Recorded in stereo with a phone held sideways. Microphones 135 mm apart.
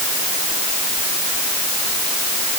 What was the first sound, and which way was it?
Only background noise.